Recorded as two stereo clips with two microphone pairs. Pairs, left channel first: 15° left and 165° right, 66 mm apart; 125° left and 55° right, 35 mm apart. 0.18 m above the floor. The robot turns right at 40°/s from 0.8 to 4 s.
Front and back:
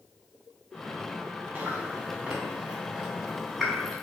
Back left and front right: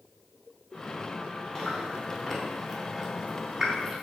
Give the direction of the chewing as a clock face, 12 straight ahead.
5 o'clock.